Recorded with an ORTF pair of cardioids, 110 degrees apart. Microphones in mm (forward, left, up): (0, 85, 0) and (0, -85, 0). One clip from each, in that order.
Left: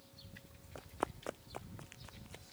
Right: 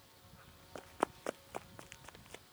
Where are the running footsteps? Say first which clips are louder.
Right 3 dB; 15° right.